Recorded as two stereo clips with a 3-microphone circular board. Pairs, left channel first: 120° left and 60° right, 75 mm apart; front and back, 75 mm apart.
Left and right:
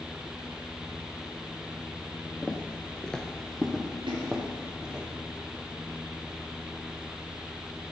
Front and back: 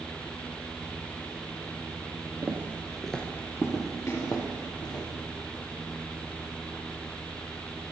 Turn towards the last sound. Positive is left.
turn(degrees=-55)